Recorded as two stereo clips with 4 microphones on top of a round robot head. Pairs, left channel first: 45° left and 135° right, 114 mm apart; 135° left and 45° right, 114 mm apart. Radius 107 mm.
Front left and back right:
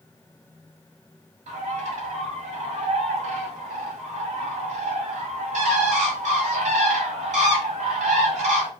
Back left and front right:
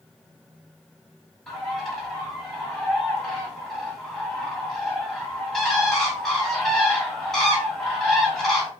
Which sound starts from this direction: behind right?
A bird, at 1.5 s.